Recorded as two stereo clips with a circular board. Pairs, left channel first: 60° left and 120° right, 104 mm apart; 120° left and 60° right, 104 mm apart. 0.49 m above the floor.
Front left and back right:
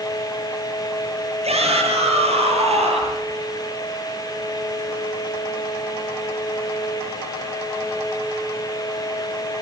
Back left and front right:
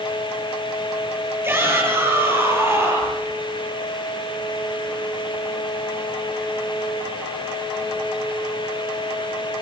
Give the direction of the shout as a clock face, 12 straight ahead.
4 o'clock.